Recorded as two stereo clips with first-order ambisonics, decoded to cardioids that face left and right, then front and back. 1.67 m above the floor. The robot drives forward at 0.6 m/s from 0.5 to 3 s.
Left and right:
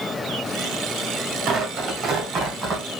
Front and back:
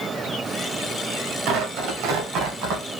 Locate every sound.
1.5 s tearing paper: 150° right, 0.9 m; by 2.8 s 165° right, 1.7 m